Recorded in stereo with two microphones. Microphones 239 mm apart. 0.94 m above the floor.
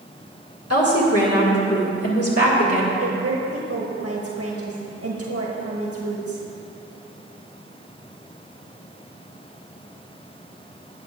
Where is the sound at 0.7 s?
80° left, 1.9 m.